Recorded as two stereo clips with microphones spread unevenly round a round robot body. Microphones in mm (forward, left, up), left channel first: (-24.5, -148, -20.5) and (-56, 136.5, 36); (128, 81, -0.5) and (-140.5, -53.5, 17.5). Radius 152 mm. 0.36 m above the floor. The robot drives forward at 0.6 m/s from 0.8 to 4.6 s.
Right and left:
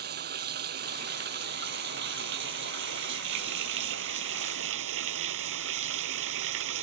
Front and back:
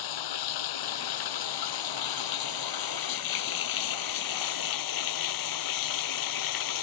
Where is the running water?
35° left; by 6.8 s 45° left.